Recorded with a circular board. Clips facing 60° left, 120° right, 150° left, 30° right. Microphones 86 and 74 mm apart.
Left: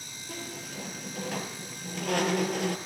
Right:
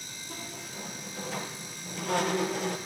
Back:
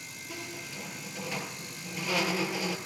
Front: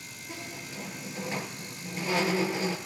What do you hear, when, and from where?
0.3 s a squeak: 30° left, 4.5 m